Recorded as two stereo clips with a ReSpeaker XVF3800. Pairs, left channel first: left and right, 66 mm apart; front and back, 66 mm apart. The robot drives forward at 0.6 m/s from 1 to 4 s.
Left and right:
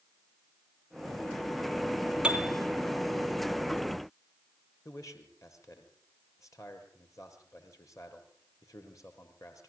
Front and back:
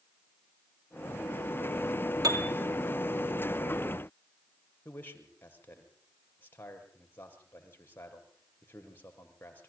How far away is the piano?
About 3 m.